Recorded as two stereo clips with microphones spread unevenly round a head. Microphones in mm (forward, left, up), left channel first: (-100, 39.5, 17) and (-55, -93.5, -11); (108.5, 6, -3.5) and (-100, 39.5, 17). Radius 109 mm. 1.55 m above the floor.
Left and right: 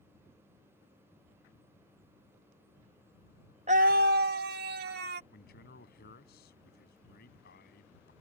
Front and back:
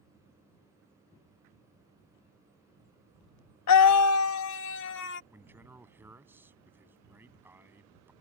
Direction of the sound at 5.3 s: 90° left.